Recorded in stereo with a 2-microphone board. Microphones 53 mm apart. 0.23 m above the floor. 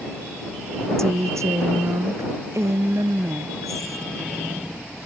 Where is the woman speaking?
75° right (ahead or behind); by 4.0 s 85° right.